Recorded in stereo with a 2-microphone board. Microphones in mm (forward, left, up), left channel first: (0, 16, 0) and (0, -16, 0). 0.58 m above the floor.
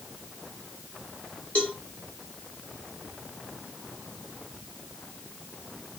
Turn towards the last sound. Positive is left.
turn(degrees=40)  # may be behind; listen again after turning